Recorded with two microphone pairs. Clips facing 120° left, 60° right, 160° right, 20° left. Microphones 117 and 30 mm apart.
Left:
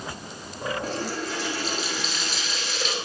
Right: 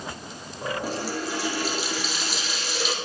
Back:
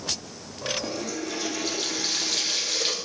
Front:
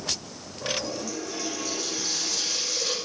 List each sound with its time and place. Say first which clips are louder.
0.8 s a running tap: even, back 2 dB; 140° right, 1.9 m